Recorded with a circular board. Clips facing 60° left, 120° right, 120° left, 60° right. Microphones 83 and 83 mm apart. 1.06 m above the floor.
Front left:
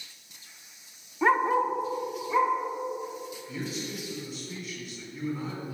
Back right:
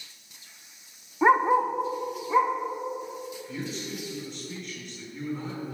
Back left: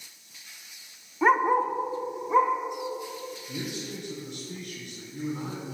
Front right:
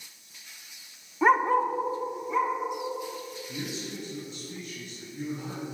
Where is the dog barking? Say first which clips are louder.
Back right 3 dB, even; 140° right, 0.6 m; by 2.5 s 160° left, 1.4 m.